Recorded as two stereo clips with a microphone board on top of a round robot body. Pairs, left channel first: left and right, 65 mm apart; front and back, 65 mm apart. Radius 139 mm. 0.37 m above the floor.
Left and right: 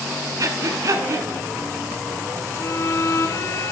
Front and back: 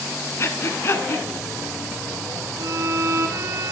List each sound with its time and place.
0.4 s breathing: 50° right, 1.4 m
2.6 s a violin: 135° left, 1.3 m